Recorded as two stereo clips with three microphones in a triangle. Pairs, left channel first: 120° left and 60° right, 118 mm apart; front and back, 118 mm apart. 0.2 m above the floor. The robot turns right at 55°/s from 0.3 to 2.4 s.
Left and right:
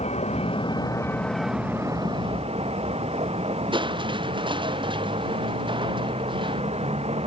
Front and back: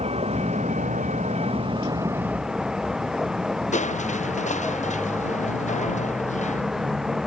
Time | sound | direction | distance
0.0 | a vehicle | 150° left | ?
3.7 | crushing | 10° right | ?